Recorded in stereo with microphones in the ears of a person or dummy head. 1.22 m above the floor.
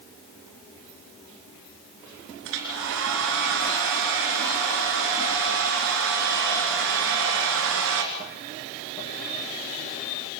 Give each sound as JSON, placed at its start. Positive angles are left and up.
{"t": 2.5, "sound": "a hair dryer", "side_deg": -65, "distance_m": 3.0}